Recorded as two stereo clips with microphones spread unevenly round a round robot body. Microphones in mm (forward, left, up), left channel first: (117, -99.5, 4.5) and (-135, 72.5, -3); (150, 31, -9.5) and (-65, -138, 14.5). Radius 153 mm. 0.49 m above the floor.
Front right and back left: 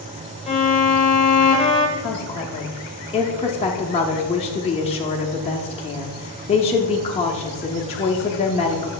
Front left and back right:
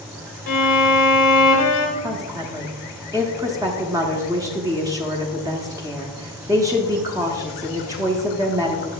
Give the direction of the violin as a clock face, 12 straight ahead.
11 o'clock.